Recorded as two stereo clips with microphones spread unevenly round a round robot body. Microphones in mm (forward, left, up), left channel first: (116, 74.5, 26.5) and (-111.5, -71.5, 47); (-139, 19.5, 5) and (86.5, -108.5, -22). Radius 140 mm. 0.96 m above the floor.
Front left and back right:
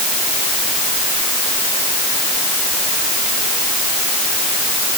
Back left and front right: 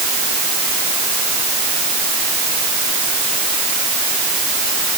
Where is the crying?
No crying in this recording.